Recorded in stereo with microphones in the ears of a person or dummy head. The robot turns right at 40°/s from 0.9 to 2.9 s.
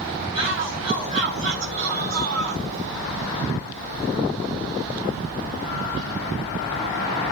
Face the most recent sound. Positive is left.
turn(degrees=-70)